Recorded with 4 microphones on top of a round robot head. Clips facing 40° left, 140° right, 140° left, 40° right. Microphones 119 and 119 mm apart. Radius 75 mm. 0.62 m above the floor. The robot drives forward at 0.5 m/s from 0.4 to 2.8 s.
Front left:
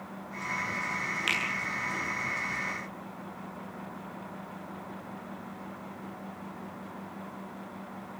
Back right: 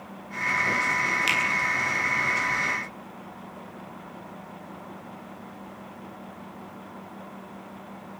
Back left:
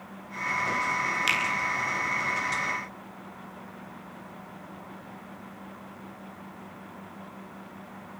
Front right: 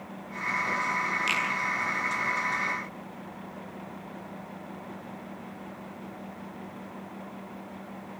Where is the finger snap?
170° left, 10 m.